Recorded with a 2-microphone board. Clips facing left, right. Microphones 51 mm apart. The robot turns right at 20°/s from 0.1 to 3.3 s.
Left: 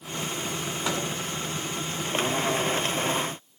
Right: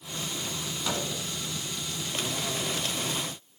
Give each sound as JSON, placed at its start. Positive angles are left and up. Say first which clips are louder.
{"t": 0.8, "sound": "a microwave", "louder": "left 2 dB", "side_deg": 20, "distance_m": 2.0}